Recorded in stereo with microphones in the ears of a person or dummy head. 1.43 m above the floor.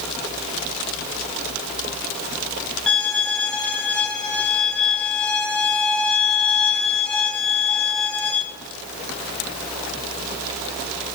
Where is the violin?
5° left (ahead or behind), 0.8 m.